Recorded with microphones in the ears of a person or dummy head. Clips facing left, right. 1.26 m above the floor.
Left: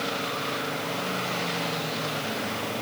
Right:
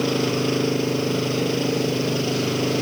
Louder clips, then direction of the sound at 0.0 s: Right 11 dB; 60° right (ahead or behind).